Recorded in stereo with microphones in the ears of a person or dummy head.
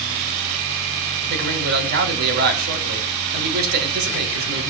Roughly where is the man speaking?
Right.